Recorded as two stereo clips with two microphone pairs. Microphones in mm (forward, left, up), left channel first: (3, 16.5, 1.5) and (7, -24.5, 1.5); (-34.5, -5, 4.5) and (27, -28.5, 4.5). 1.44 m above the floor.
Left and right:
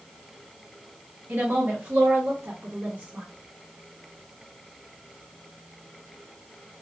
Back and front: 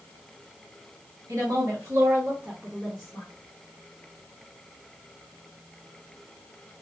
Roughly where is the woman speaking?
Ahead right.